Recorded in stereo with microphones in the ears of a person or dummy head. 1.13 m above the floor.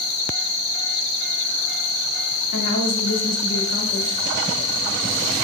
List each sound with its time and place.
2.5 s a woman speaking: 55° left (ahead or behind), 2.5 m